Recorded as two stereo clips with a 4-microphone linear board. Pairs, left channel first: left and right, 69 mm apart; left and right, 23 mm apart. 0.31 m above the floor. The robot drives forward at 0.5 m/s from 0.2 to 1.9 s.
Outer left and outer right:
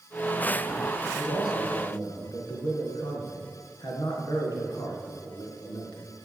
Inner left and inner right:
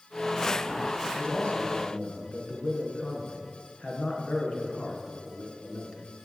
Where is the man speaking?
70° left (ahead or behind), 4 m.